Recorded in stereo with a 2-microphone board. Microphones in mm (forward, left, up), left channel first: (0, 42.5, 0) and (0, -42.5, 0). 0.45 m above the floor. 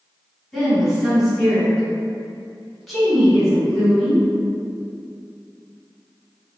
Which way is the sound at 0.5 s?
5° left (ahead or behind).